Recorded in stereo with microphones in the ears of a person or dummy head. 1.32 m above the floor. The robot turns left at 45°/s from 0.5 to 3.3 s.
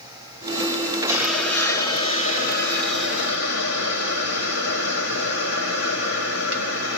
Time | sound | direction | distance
1.1 | a hiss | 165° right | 0.9 m